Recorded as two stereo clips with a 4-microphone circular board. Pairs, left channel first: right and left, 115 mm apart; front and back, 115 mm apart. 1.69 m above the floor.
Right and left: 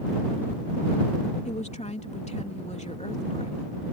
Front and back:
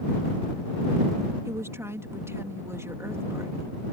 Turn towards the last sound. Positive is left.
turn(degrees=-110)